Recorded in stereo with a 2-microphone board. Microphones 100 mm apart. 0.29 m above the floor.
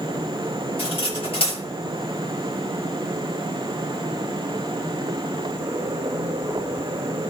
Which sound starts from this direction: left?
Cutlery clinking, at 0.8 s.